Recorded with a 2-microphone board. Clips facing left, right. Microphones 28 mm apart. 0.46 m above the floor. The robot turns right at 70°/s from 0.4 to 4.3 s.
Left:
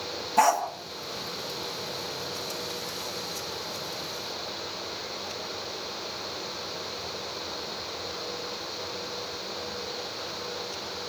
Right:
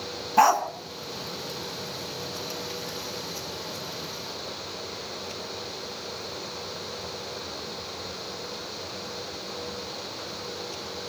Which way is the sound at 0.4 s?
15° right (ahead or behind).